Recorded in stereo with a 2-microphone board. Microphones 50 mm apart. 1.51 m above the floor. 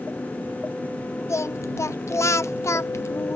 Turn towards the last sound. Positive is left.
turn(degrees=65)  # may be behind; listen again after turning